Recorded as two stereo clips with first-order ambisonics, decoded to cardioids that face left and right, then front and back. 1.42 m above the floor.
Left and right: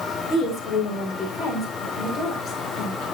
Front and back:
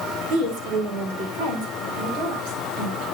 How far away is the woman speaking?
About 4 m.